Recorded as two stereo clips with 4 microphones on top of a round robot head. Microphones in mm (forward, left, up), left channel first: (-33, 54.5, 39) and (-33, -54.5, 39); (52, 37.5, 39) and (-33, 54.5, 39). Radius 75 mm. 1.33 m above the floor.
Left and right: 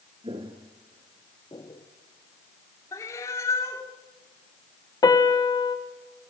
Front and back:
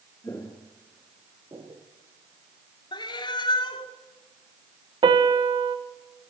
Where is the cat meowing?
20° left, 2 m.